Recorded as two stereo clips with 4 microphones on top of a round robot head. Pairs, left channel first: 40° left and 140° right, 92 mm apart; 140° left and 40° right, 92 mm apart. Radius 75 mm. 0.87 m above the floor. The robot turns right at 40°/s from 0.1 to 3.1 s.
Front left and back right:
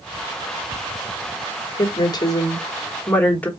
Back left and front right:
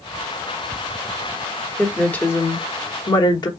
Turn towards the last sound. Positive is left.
turn(degrees=110)